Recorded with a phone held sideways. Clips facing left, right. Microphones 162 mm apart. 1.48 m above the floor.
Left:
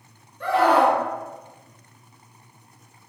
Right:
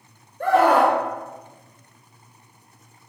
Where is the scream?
50° right (ahead or behind), 1.6 m.